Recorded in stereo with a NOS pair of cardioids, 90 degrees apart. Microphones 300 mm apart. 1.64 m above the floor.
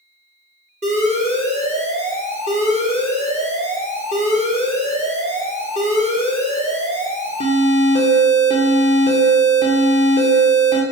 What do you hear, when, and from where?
0.8 s an alarm: 20° right, 1.0 m